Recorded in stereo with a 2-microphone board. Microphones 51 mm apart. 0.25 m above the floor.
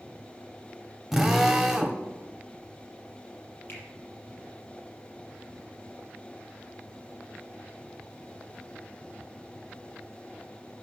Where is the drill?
5° right (ahead or behind), 1.4 m.